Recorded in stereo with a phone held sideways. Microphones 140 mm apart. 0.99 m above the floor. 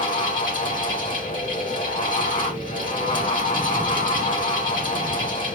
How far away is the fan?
About 2.5 m.